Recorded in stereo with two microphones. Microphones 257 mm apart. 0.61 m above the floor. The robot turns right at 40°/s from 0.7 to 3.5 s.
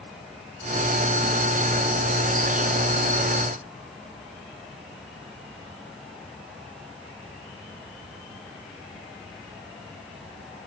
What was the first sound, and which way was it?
Only background noise.